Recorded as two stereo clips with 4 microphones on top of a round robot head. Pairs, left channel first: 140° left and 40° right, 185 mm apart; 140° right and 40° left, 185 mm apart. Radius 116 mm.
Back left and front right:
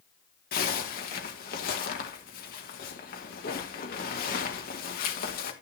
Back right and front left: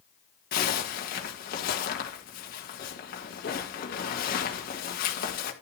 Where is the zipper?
Straight behind, 1.9 m.